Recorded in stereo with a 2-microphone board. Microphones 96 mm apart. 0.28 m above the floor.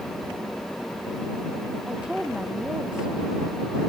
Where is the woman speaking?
10° right (ahead or behind).